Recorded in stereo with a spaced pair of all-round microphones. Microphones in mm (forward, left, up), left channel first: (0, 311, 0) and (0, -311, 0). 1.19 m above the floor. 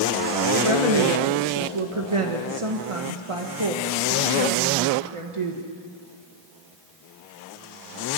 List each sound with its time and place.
0.6 s a woman speaking: 55° right (ahead or behind), 1.6 m